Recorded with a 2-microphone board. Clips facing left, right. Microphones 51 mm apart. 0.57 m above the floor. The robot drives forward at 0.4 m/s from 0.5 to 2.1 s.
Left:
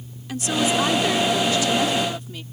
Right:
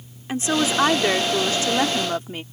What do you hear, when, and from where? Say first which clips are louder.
0.3 s a woman speaking: right 1 dB; 35° right (ahead or behind); by 2.4 s 40° right (ahead or behind)